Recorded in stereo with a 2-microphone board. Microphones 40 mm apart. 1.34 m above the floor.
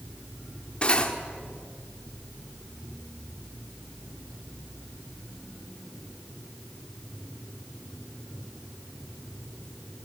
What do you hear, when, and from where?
0.8 s cutlery clinking: 25° left (ahead or behind), 1.7 m